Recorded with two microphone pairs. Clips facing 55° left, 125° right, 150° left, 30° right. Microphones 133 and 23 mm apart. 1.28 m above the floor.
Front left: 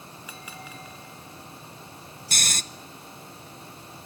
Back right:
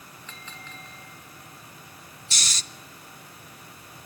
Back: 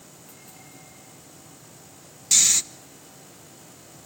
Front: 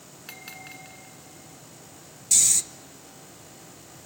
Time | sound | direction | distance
0.3 | a bell | 25° right | 2 m
2.3 | snoring | 95° left | 0.9 m